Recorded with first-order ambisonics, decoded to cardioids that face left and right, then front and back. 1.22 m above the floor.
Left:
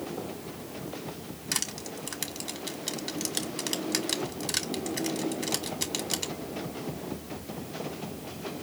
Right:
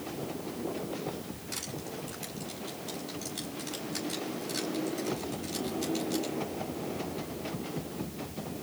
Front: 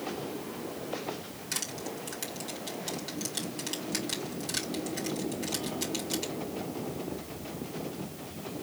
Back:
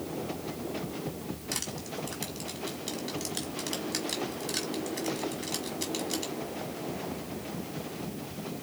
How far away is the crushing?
About 1.7 m.